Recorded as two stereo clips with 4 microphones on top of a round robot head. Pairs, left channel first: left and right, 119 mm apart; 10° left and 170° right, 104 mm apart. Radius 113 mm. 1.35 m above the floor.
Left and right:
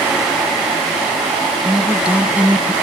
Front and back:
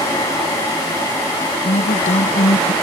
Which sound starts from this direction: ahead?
A woman speaking, at 1.6 s.